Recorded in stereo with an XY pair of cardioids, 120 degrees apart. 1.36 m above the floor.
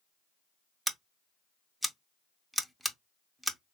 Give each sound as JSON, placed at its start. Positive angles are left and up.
{"t": 0.9, "sound": "scissors", "azimuth_deg": -5, "distance_m": 0.5}